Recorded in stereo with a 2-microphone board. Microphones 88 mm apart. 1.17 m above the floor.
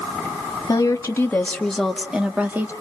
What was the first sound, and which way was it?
A woman speaking, 40° left (ahead or behind).